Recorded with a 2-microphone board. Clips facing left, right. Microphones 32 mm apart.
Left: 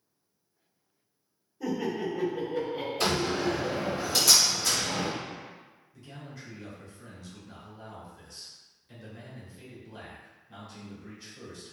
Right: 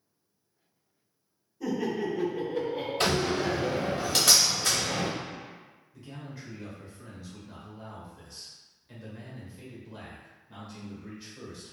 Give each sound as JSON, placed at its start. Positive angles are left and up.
{"t": 1.6, "sound": "laughter", "side_deg": 15, "distance_m": 1.3}
{"t": 3.0, "sound": "a door slam", "side_deg": -55, "distance_m": 1.2}
{"t": 5.9, "sound": "a man speaking", "side_deg": -10, "distance_m": 1.0}